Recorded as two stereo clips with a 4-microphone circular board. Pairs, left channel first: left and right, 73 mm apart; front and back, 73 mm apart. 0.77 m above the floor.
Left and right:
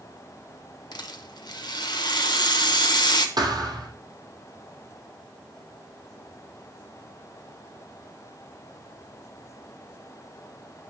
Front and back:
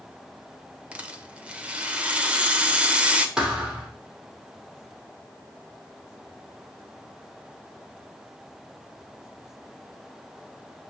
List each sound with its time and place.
0.9 s a rattle: 105° left, 1.1 m
3.4 s a thud: 100° right, 2 m